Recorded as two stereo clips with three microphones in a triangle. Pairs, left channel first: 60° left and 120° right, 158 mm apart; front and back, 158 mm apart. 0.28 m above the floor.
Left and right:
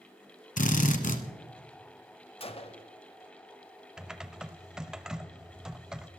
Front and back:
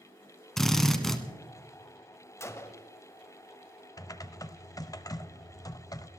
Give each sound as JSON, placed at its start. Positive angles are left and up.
{"t": 0.6, "sound": "a drill", "azimuth_deg": 85, "distance_m": 1.2}
{"t": 2.4, "sound": "a gunshot", "azimuth_deg": 60, "distance_m": 0.8}
{"t": 4.0, "sound": "typing on a keyboard", "azimuth_deg": -40, "distance_m": 0.6}